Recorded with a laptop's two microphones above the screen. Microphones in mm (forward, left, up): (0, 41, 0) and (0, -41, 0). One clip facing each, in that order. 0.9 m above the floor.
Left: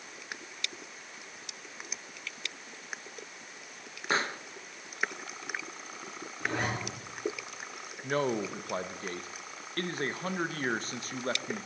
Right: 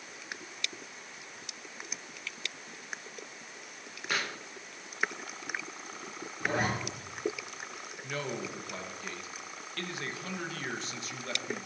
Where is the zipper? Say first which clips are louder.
Right 2 dB; 10° right (ahead or behind), 3 m.